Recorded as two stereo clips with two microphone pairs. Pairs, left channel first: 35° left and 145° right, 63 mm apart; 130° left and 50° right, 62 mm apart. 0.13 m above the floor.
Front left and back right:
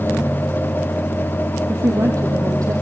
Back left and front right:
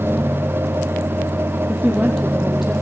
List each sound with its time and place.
1.7 s a woman speaking: 140° right, 3.5 m